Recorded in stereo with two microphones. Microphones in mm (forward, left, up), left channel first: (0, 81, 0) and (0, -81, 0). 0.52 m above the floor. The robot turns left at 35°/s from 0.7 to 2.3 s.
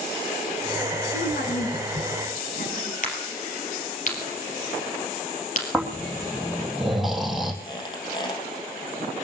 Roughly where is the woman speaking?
Left.